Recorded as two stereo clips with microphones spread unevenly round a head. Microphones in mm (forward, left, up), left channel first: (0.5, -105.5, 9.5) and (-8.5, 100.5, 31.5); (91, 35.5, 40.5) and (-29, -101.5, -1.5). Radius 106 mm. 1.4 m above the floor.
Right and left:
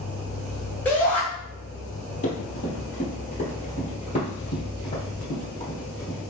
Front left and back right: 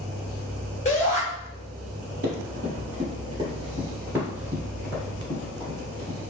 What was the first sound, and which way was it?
A shout, 5° right.